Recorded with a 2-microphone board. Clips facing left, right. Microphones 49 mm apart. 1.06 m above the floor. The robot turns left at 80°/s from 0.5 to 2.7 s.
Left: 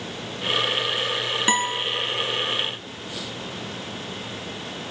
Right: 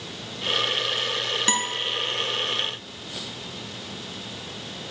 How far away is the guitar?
About 1.7 m.